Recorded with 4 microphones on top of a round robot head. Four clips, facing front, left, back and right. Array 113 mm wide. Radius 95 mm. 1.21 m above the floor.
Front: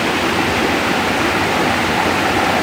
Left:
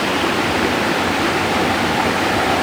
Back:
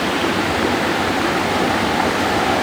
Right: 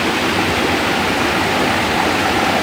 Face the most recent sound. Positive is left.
No sound to turn to.